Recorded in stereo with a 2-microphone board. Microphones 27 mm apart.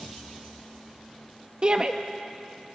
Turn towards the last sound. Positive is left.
turn(degrees=-35)  # may be behind; listen again after turning